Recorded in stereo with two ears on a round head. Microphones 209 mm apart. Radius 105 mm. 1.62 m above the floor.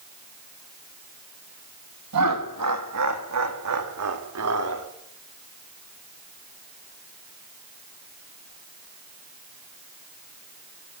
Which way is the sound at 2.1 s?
85° right.